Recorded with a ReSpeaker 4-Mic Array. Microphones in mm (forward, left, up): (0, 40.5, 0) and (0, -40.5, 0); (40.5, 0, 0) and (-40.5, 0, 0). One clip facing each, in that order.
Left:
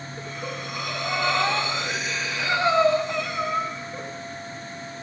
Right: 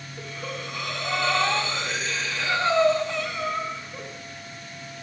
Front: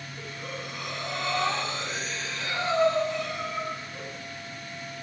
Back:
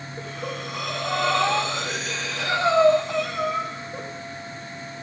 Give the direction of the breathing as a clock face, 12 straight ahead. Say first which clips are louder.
Even, back 6 dB; 6 o'clock.